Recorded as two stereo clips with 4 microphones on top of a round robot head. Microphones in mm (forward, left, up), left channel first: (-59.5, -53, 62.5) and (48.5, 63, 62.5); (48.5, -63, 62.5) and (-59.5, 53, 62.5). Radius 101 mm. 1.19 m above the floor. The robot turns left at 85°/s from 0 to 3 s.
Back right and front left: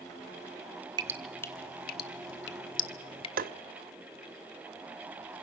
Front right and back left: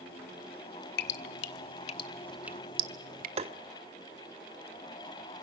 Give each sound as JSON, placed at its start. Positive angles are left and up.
{"t": 1.0, "sound": "dripping", "azimuth_deg": -20, "distance_m": 1.3}
{"t": 3.4, "sound": "tapping", "azimuth_deg": 80, "distance_m": 0.9}